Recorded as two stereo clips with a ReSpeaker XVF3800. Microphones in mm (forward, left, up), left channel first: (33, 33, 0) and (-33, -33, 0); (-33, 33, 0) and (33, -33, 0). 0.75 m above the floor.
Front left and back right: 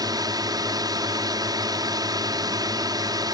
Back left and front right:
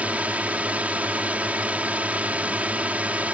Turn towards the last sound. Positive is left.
turn(degrees=-115)